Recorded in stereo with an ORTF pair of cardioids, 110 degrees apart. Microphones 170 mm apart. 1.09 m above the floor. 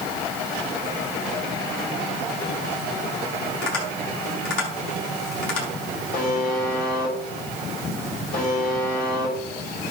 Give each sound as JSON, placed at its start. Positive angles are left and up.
{"t": 3.6, "sound": "tapping", "azimuth_deg": 60, "distance_m": 6.0}
{"t": 6.1, "sound": "a buzzer", "azimuth_deg": 55, "distance_m": 5.5}